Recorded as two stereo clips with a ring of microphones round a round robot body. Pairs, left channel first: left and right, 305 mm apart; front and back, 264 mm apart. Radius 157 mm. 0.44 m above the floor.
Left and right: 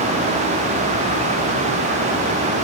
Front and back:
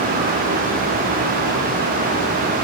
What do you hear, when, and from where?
Only background noise.